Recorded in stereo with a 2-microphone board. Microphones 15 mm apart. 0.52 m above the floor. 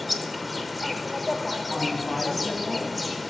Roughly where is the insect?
Centre.